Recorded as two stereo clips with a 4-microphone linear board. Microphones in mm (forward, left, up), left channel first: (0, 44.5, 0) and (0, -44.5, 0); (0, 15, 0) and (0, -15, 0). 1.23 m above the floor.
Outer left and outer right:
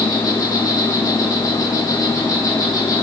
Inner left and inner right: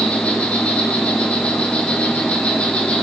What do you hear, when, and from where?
0.0 s an insect: 45° left (ahead or behind), 5.5 m